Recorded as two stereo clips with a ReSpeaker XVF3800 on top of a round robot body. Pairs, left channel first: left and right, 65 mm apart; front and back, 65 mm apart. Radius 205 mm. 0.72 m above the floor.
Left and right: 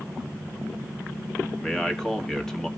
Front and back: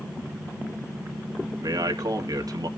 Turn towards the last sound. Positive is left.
turn(degrees=170)